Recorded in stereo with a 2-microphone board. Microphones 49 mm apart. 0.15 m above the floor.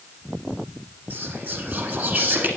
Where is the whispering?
40° right (ahead or behind), 1.5 m.